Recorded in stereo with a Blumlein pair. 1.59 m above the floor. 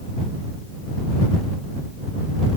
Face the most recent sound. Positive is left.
No sound to turn to.